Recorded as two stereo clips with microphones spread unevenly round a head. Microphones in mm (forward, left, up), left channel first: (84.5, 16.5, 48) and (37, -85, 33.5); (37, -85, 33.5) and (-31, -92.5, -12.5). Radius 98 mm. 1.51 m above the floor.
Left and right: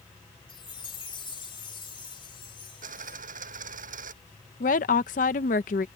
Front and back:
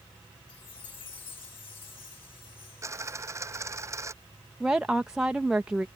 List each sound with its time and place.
0.5 s a chime: 20° left
2.8 s a dropped coin: 115° right
4.6 s a woman speaking: 85° left